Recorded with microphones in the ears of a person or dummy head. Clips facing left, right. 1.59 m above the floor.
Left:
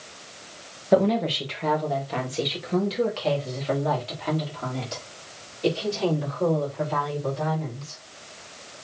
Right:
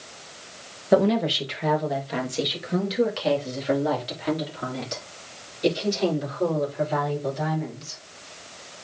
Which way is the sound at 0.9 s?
5° right (ahead or behind).